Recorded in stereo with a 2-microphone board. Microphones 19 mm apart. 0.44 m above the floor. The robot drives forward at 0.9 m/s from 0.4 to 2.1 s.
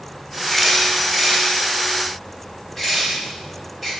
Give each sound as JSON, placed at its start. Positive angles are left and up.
{"t": 0.5, "sound": "a camera shutter", "side_deg": -5, "distance_m": 0.5}